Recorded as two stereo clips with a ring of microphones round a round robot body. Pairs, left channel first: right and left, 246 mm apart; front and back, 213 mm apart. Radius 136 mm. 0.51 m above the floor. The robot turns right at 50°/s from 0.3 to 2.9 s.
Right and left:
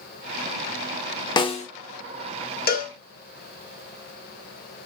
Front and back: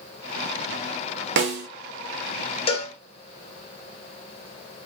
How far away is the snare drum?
About 0.8 m.